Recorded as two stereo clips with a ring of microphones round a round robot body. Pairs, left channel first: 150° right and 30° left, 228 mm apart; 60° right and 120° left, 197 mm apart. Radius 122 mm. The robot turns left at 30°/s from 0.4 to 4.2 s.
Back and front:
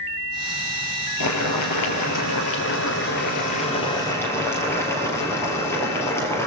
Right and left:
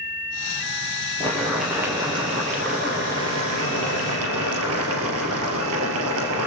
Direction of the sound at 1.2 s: 140° right.